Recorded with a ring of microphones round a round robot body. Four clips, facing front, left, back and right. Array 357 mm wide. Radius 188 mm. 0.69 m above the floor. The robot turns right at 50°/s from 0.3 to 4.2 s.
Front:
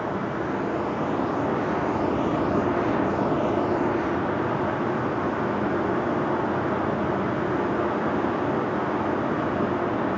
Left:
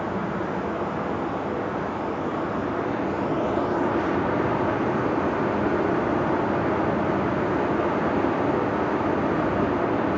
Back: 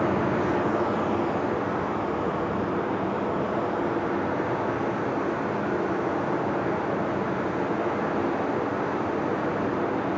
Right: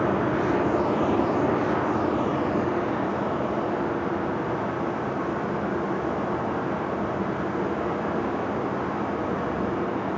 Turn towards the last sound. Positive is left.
turn(degrees=65)